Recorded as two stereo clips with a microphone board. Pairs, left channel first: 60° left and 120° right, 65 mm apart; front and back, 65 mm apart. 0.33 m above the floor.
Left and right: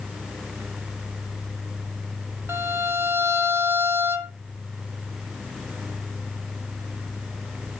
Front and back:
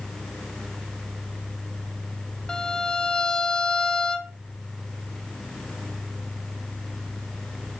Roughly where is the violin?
Right.